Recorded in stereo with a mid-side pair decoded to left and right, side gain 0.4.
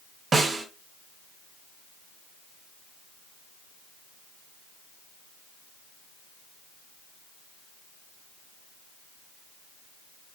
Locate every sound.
0.3 s a snare drum: 45° right, 1.5 m